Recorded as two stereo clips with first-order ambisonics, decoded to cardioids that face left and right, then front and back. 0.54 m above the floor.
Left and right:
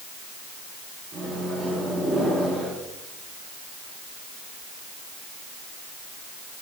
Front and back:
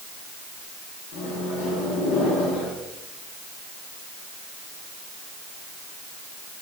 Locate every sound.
1.1 s a microwave: 20° right, 4.5 m